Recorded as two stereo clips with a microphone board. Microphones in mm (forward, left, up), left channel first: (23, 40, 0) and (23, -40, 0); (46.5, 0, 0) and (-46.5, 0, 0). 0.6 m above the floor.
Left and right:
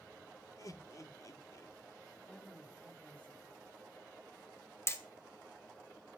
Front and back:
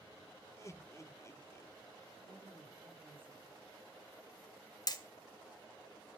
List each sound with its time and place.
0.6 s laughter: 50° left, 1.2 m
2.2 s a woman speaking: 165° left, 4.5 m
4.9 s hammering: 35° left, 1.5 m